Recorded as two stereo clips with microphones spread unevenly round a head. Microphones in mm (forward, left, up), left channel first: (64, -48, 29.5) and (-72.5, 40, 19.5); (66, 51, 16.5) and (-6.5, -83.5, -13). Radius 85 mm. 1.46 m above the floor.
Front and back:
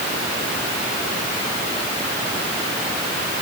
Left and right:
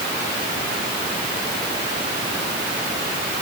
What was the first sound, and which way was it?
Only background noise.